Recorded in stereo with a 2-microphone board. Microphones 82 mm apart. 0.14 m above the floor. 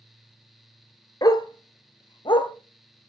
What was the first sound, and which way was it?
A dog barking, 45° left (ahead or behind).